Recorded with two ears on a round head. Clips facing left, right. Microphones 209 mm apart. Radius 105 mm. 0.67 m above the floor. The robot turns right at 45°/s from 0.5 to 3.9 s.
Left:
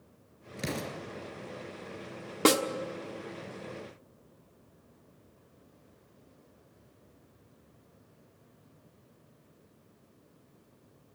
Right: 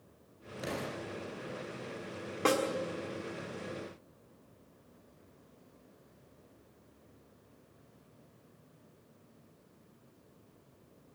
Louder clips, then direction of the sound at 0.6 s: Left 2 dB; 30° left (ahead or behind).